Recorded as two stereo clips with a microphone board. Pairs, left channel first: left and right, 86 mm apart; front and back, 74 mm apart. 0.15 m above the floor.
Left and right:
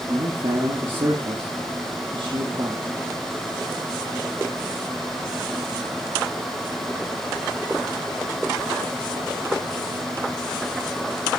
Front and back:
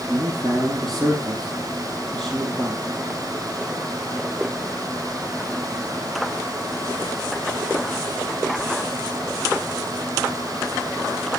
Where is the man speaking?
85° right, 4 m.